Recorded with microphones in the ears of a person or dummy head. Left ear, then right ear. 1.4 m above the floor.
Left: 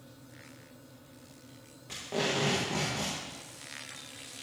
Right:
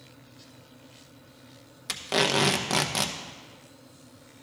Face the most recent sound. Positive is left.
turn(degrees=-65)  # may be behind; listen again after turning